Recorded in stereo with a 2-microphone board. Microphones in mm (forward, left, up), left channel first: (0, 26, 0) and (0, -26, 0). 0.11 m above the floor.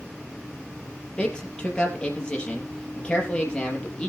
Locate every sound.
1.2 s a man speaking: 15° left (ahead or behind), 3.5 m